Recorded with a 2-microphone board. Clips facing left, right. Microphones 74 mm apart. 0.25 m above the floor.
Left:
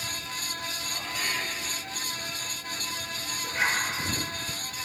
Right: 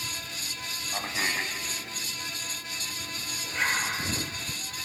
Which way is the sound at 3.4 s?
10° left (ahead or behind).